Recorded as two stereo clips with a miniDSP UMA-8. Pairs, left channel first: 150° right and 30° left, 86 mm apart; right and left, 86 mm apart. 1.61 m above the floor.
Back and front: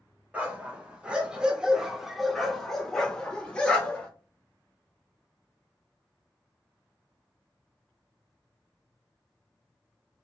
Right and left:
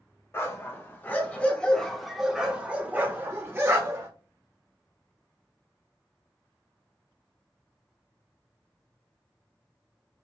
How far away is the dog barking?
About 1.8 m.